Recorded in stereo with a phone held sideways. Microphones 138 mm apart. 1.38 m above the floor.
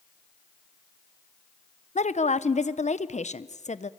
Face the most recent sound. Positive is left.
turn(degrees=65)  # may be behind; listen again after turning